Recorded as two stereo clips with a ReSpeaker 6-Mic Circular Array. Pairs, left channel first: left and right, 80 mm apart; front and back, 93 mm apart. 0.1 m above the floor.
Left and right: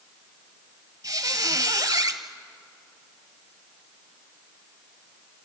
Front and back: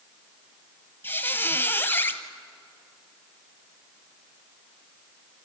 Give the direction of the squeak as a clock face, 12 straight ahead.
2 o'clock.